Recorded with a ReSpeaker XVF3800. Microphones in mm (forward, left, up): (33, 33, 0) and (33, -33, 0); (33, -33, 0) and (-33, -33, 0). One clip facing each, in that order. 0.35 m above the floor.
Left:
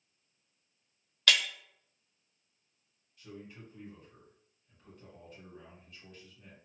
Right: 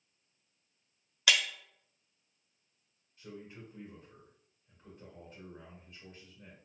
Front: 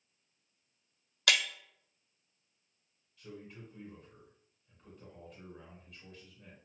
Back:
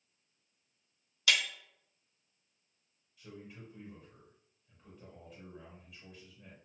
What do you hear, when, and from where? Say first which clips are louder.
1.3 s breaking glass: left 1 dB, front 1 dB; 10° right, 0.6 m
3.2 s a man speaking: right 1 dB, front 1 dB; 95° right, 1.5 m